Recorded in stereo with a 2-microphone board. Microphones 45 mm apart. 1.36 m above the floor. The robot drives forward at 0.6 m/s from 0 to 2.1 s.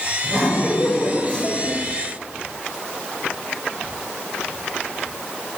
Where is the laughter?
20° left (ahead or behind), 7.5 m; by 1.8 s 25° left (ahead or behind), 6.5 m.